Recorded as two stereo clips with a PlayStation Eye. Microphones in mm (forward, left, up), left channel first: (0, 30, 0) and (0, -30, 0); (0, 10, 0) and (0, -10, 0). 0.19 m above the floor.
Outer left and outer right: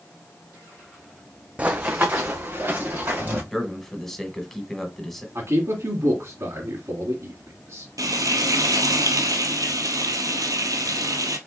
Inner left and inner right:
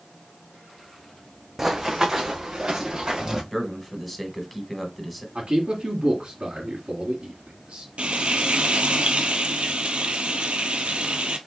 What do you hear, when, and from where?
1.6 s running footsteps: 20° right (ahead or behind), 0.6 m; by 3.4 s 40° right (ahead or behind), 2.5 m
3.5 s a man speaking: 5° left (ahead or behind), 1.1 m
5.3 s a man speaking: 50° right (ahead or behind), 2.0 m
8.0 s frying: 85° right, 0.9 m